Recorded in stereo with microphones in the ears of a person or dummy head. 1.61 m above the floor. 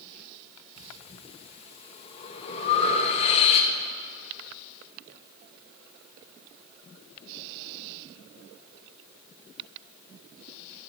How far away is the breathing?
About 1.1 m.